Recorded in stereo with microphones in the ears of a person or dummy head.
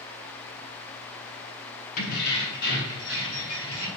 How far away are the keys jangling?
About 0.6 m.